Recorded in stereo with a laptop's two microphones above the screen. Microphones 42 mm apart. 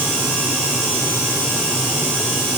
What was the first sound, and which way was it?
Only background noise.